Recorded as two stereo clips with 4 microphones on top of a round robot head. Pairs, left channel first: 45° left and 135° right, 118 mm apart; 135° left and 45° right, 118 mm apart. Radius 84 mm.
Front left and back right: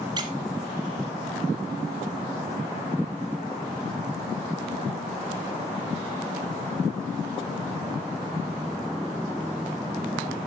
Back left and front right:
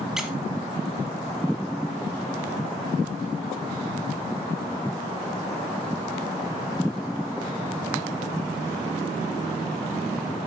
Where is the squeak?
130° right, 0.8 m.